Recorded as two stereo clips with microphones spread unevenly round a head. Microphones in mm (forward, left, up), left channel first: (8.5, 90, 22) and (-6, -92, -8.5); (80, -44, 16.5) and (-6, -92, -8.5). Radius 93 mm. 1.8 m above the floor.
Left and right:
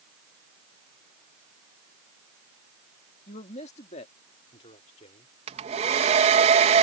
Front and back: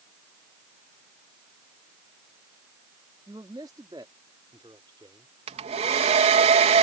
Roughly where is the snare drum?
No snare drum in this recording.